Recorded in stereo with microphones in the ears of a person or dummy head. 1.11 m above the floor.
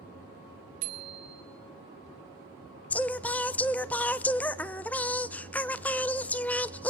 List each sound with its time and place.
0.8 s a bicycle bell: 75° right (ahead or behind), 2 m
2.9 s singing: 5° left (ahead or behind), 0.5 m